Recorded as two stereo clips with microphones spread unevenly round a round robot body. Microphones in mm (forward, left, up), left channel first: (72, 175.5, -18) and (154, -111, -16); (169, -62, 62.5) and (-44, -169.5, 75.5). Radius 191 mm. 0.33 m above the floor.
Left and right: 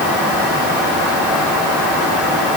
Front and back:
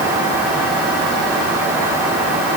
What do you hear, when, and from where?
Only background noise.